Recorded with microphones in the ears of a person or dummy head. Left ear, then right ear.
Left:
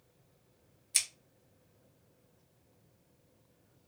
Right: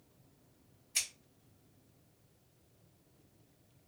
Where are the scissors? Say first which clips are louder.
Left 3 dB; 80° left, 0.8 m.